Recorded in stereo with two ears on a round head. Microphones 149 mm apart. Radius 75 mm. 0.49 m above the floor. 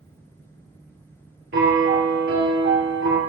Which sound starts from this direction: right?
A piano, at 1.5 s.